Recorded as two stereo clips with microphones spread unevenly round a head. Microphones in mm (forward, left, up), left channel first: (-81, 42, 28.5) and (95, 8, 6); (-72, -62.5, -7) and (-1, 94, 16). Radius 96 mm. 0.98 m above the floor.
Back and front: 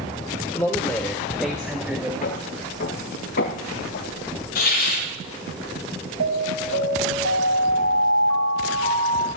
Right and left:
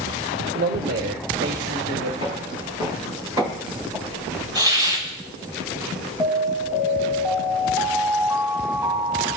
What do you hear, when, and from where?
0.6 s a man speaking: 90° left, 1.7 m; by 2.1 s 65° left, 2.5 m
2.2 s footsteps: 125° left, 7 m; by 4.4 s 135° left, 9.5 m
4.5 s a hiss: 135° left, 8.5 m
6.2 s an alarm: 15° right, 4 m